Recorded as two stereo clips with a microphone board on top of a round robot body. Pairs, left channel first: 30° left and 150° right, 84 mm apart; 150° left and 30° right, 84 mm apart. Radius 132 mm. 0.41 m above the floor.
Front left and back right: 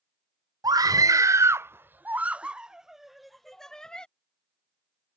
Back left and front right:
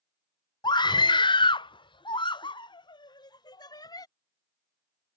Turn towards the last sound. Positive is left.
turn(degrees=110)